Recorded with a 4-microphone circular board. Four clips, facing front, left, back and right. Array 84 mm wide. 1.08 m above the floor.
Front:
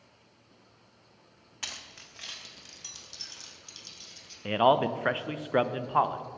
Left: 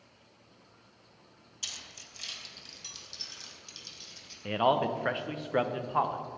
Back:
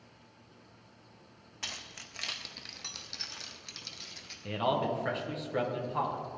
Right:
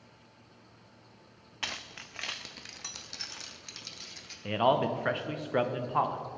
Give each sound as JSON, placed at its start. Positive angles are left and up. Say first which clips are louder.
{"t": 1.6, "sound": "keys jangling", "louder": "right 10 dB, even", "azimuth_deg": -85, "distance_m": 0.5}
{"t": 4.5, "sound": "a man speaking", "louder": "even, front 7 dB", "azimuth_deg": 0, "distance_m": 0.6}